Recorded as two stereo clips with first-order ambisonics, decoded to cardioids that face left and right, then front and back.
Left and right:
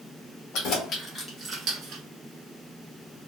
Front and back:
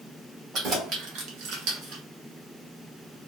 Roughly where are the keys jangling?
Behind left.